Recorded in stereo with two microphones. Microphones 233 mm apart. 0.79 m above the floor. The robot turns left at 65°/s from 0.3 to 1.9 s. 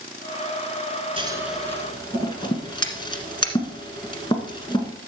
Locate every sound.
1.2 s scissors: 25° right (ahead or behind), 1.6 m; by 4.9 s 20° left (ahead or behind), 1.6 m